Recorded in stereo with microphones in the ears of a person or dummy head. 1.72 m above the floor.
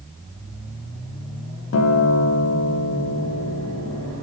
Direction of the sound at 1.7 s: 85° left.